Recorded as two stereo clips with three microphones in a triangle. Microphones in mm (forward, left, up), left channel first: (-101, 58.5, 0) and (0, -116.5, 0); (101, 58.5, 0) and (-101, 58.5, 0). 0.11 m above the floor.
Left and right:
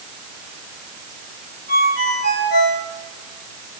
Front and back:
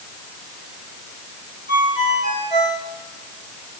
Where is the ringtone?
35° right, 8.5 m.